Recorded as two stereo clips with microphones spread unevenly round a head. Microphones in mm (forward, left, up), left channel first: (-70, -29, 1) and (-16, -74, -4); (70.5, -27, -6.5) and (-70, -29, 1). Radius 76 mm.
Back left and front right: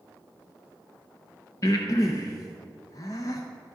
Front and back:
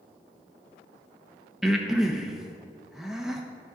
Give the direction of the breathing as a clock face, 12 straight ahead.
9 o'clock.